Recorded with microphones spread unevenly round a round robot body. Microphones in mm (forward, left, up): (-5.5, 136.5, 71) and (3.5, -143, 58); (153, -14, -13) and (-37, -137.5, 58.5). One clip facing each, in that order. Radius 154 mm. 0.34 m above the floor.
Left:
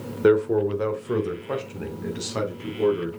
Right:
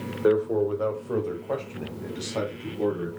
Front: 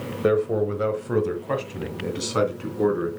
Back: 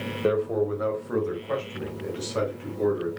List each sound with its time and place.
0.2 s a man speaking: 75° left, 1.1 m; by 3.1 s 20° left, 3.5 m